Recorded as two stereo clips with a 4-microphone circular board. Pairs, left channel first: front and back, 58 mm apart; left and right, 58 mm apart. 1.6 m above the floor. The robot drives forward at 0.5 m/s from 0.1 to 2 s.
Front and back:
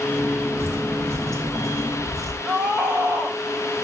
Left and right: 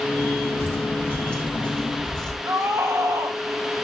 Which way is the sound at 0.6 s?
140° left.